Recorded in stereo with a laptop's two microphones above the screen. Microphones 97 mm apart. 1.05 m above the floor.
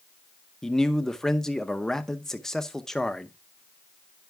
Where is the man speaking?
5° left (ahead or behind), 0.7 m.